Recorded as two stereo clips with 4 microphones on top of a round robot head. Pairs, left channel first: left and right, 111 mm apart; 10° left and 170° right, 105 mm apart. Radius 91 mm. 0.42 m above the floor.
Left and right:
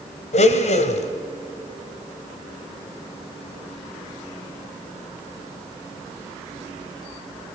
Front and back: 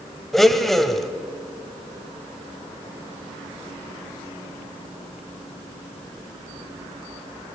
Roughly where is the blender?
Left.